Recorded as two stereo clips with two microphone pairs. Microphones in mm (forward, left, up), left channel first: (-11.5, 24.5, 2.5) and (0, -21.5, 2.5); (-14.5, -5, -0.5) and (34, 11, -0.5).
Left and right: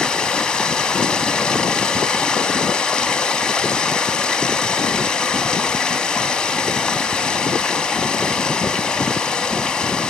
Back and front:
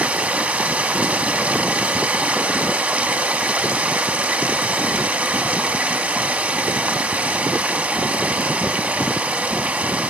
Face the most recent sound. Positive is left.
turn(degrees=45)